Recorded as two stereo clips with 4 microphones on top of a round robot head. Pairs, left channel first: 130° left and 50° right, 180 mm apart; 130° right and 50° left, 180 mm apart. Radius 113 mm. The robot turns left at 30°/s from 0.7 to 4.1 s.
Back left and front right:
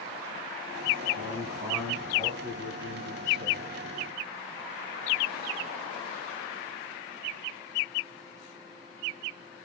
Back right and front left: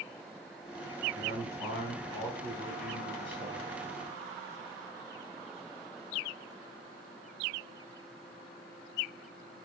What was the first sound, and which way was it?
A man speaking, 125° right.